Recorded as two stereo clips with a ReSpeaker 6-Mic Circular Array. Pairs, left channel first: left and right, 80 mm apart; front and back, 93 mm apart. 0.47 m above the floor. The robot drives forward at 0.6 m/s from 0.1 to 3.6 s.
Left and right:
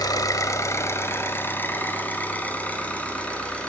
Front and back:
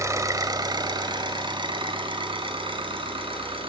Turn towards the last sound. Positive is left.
turn(degrees=165)